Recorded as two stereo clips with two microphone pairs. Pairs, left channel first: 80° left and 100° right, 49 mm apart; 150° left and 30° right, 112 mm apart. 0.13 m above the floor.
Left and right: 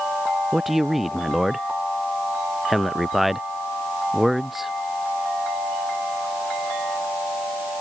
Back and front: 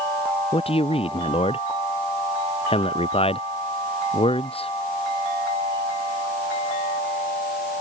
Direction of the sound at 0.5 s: 175° left.